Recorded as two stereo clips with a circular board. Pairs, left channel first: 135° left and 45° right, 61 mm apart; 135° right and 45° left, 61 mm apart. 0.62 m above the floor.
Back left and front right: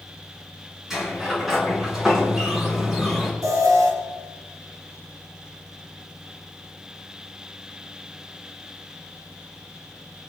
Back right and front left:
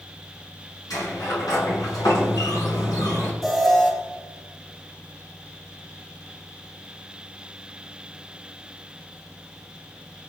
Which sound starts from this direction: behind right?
A sliding door, at 0.9 s.